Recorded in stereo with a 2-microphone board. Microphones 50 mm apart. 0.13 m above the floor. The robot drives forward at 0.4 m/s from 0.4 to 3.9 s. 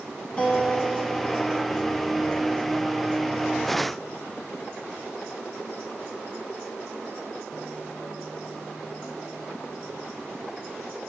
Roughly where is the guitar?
Left.